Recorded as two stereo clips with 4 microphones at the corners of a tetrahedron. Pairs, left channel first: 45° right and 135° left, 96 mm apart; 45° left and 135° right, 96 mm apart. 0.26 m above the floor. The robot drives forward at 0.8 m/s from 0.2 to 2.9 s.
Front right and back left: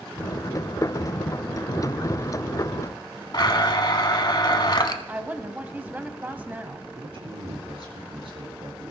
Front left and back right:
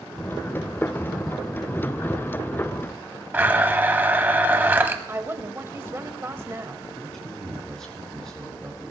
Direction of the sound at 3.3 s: 65° right.